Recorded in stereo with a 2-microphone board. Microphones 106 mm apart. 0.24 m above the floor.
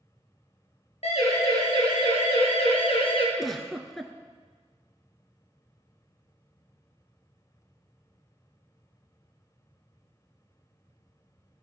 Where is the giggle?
Centre (ahead or behind), 1.6 m.